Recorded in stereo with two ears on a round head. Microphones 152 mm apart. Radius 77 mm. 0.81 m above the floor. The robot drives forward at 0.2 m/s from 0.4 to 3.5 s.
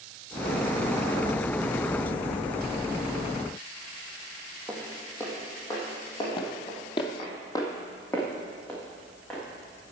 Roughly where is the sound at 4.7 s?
Centre.